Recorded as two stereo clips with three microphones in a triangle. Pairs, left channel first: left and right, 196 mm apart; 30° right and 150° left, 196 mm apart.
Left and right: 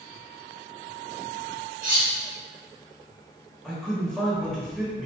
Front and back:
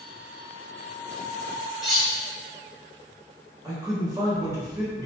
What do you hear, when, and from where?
1.8 s cutlery clinking: 120° right, 0.8 m
3.6 s a man speaking: 170° left, 0.9 m